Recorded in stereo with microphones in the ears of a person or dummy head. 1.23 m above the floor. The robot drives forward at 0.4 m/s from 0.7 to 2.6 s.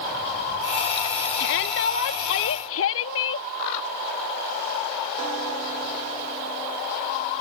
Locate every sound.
1.4 s a shout: 65° left (ahead or behind); by 3.5 s 75° left (ahead or behind)